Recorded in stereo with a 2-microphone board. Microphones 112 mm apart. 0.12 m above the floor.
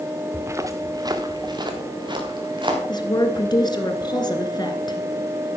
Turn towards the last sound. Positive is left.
turn(degrees=40)  # may be behind; listen again after turning